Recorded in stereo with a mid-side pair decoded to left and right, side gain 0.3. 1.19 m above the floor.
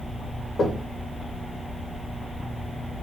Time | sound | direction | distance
0.6 | knocking | 65° left | 1.8 m